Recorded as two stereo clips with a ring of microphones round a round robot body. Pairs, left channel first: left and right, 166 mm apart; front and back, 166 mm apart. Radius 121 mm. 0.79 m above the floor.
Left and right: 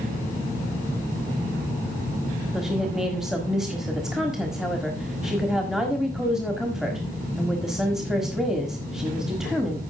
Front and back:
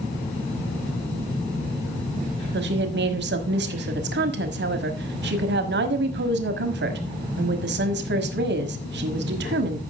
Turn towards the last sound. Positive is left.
turn(degrees=180)